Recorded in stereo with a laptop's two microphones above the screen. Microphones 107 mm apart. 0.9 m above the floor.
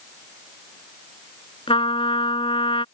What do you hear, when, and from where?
1.7 s a trumpet: 55° left (ahead or behind)